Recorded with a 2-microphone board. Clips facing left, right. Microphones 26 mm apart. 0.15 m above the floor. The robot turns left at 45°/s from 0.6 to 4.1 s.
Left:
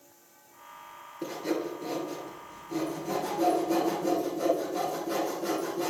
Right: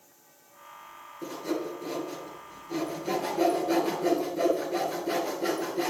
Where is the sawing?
30° left (ahead or behind), 2.5 m; by 5.9 s 60° right (ahead or behind), 2.5 m.